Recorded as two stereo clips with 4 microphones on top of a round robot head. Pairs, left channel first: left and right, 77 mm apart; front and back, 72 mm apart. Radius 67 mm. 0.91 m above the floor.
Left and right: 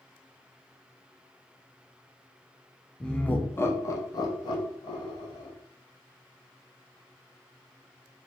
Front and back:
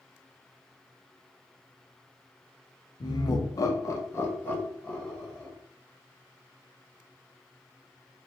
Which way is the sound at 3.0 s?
10° left.